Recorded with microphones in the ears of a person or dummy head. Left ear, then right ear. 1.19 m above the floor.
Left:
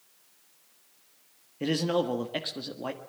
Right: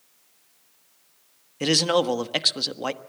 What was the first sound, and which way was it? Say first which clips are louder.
A man speaking: right 7 dB; 45° right (ahead or behind).